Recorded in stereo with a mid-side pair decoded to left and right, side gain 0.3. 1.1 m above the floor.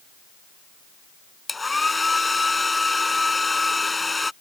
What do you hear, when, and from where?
1.5 s a hair dryer: 30° left